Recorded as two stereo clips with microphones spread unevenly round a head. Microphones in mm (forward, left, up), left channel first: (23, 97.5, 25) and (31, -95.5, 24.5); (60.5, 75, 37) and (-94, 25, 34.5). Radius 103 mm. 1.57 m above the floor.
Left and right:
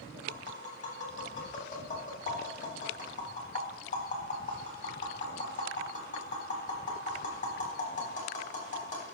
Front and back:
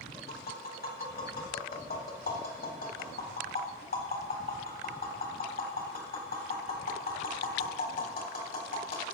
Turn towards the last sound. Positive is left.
turn(degrees=40)